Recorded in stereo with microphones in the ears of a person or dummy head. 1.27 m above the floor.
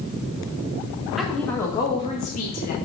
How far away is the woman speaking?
About 1.4 m.